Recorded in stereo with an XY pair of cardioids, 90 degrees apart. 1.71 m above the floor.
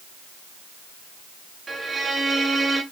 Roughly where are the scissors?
No scissors in this recording.